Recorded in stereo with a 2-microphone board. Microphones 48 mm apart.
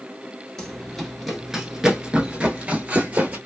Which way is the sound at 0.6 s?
10° left (ahead or behind).